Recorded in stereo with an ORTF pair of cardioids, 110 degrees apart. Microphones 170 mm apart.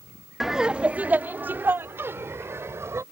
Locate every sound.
0.4 s laughter: straight ahead; by 3.0 s 15° right